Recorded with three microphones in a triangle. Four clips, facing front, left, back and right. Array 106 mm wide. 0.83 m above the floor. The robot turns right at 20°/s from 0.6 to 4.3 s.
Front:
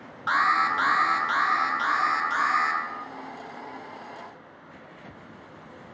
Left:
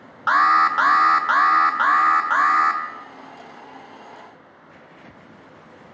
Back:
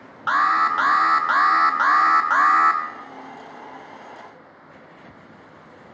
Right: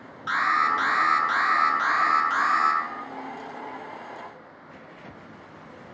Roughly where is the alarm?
Left.